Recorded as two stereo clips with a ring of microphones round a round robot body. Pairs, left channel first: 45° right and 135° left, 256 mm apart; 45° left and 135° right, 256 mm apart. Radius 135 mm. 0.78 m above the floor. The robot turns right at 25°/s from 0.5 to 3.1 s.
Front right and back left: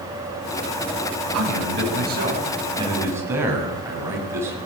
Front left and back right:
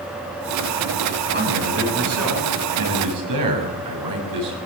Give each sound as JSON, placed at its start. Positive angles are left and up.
{"t": 1.3, "sound": "a man speaking", "azimuth_deg": 170, "distance_m": 7.0}